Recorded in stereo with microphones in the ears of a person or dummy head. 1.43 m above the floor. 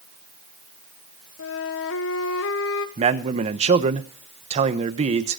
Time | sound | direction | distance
1.4 | a flute | 70° left (ahead or behind) | 1.4 m
3.0 | a man speaking | 35° right (ahead or behind) | 1.1 m